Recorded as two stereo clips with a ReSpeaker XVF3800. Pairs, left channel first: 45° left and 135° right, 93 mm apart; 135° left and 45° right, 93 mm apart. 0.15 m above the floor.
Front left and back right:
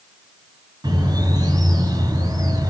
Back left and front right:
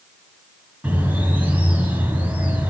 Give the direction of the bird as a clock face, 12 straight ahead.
4 o'clock.